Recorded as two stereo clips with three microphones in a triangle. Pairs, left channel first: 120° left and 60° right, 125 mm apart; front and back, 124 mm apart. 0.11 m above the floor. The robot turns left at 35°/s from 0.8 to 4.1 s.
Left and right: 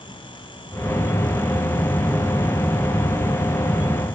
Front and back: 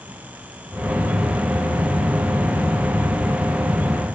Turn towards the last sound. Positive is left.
No sound to turn to.